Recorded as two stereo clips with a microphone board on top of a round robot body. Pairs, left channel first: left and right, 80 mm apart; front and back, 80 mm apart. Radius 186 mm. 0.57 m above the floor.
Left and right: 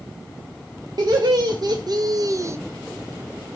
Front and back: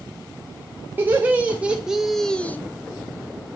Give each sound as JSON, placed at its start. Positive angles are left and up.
{"t": 1.0, "sound": "laughter", "azimuth_deg": -115, "distance_m": 1.3}